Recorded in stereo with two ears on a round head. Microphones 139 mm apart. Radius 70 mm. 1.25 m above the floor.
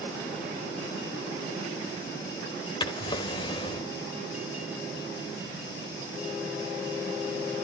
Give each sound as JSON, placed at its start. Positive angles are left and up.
{"t": 2.8, "sound": "a drawer", "side_deg": 35, "distance_m": 1.3}